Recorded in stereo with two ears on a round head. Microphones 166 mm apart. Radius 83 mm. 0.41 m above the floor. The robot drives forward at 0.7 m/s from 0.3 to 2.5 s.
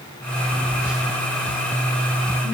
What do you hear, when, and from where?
0.5 s a phone buzzing: 5° right (ahead or behind), 1.2 m